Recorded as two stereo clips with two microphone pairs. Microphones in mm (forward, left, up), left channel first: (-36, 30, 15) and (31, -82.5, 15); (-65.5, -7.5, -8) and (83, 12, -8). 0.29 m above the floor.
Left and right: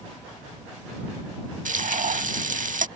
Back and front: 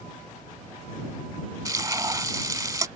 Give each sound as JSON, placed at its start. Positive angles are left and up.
{"t": 1.6, "sound": "frying", "azimuth_deg": -60}